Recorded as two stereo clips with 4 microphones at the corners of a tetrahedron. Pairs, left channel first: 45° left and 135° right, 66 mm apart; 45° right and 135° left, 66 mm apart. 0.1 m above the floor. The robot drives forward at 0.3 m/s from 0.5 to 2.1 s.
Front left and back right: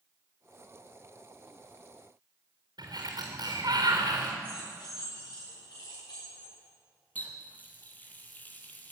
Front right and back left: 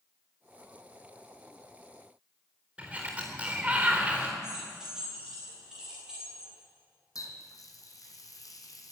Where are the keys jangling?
55° left, 9 m.